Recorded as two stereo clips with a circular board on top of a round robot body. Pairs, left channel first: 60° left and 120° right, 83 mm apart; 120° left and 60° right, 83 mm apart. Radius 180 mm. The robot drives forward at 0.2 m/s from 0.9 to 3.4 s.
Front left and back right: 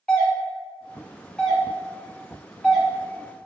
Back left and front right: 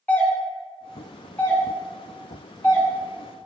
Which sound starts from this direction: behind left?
A doorbell, at 0.1 s.